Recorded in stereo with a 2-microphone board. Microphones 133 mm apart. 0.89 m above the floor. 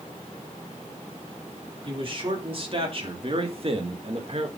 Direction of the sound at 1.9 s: 40° right (ahead or behind).